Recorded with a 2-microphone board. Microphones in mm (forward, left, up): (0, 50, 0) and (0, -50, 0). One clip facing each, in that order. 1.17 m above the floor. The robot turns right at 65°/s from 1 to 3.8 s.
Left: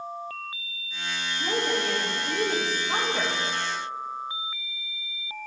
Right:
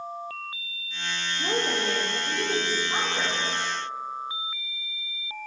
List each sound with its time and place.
1.4 s a woman speaking: 40° right, 1.6 m; by 3.4 s 90° left, 1.6 m